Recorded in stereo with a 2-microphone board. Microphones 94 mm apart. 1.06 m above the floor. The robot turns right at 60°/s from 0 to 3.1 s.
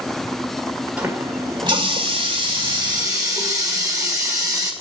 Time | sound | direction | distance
1.0 | a running tap | 165° right | 2 m